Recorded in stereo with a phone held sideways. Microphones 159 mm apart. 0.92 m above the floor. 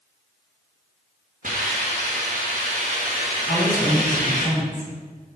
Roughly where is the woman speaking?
Left.